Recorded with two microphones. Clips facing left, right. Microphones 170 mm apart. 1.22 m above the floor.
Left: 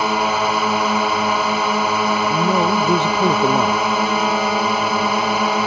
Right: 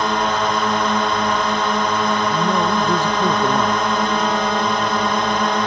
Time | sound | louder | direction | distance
0.0 | a drone | left 1 dB | 5° left (ahead or behind) | ?
2.3 | a man speaking | left 1 dB | 20° left (ahead or behind) | ?